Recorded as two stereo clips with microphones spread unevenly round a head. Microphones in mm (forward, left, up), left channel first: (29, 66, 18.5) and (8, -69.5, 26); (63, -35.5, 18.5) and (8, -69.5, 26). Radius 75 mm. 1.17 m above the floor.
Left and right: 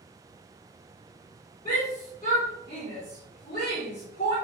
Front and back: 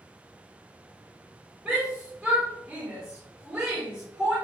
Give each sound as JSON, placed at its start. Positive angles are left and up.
{"t": 1.6, "sound": "a shout", "azimuth_deg": 125, "distance_m": 4.0}